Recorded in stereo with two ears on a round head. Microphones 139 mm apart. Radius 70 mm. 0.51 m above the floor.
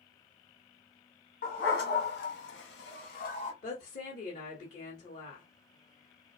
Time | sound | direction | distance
1.4 | a dog barking | 55° left (ahead or behind) | 1.4 m
3.6 | a woman speaking | 45° left (ahead or behind) | 1.3 m